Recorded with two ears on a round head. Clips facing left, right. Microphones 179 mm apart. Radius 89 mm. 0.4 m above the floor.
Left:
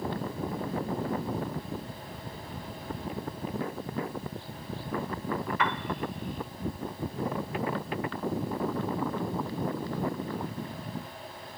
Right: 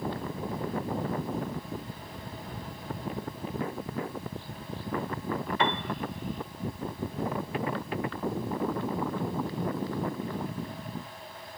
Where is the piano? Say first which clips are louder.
Right 2 dB; 25° right (ahead or behind), 1.0 m.